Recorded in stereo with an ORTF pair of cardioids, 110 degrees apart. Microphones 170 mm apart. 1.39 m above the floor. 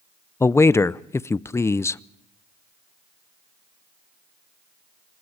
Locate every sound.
0.4 s a man speaking: 15° left, 0.6 m